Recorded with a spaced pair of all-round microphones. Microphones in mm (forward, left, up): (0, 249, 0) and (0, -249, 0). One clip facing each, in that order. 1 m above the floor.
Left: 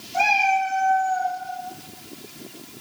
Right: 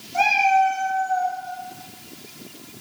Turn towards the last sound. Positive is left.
turn(degrees=50)  # may be behind; listen again after turning